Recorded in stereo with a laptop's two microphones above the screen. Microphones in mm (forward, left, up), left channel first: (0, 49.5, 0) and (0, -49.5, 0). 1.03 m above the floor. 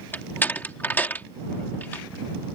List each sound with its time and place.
0.1 s a door slam: 20° left (ahead or behind)